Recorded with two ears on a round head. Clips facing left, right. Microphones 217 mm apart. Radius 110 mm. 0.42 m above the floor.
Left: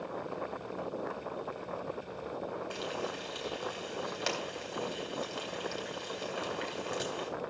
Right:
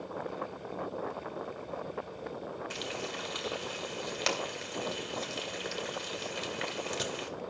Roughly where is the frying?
Right.